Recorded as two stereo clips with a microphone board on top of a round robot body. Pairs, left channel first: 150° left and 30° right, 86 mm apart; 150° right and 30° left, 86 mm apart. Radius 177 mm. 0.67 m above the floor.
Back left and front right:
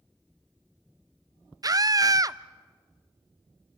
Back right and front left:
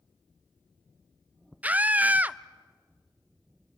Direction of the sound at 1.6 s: 35° right.